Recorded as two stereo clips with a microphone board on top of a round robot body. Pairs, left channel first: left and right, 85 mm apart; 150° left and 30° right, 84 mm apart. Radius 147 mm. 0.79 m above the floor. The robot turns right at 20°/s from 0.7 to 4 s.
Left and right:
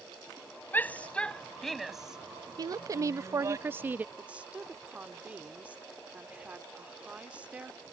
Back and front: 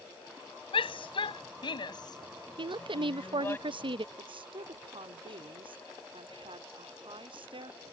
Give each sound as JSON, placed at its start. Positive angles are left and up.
{"t": 0.7, "sound": "a shout", "azimuth_deg": 160}
{"t": 2.6, "sound": "a woman speaking", "azimuth_deg": -50}
{"t": 4.2, "sound": "a woman speaking", "azimuth_deg": -15}